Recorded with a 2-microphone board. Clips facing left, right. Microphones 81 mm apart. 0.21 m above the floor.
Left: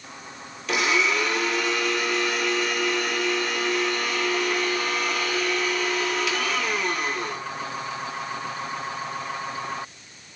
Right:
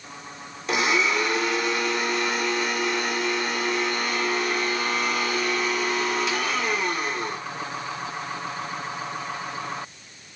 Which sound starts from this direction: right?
A blender, at 0.7 s.